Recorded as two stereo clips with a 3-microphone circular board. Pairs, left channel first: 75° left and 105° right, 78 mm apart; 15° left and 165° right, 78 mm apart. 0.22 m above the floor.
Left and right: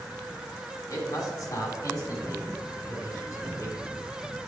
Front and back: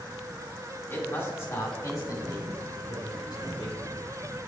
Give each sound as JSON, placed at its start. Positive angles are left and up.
{"t": 0.9, "sound": "a man speaking", "azimuth_deg": 70, "distance_m": 2.5}